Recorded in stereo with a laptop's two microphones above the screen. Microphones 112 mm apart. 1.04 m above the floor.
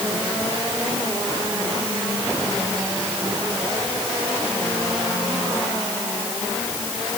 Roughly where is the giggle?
I don't hear a giggle.